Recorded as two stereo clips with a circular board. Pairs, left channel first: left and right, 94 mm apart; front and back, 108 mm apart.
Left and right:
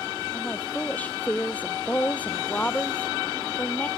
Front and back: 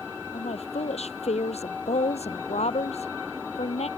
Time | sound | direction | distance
0.3 | a woman speaking | 15° left | ?